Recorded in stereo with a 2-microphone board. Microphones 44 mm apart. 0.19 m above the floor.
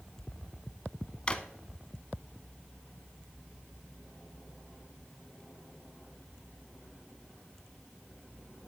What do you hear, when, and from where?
1.3 s a drawer: 25° left (ahead or behind), 0.6 m